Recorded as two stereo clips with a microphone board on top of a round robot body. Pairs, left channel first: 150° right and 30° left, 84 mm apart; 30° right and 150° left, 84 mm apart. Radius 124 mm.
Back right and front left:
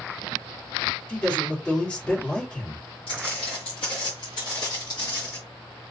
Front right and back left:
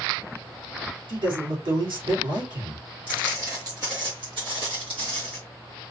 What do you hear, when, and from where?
1.1 s a man speaking: 135° left, 2.5 m
3.1 s footsteps: 140° right, 1.2 m; by 5.4 s 155° left, 1.7 m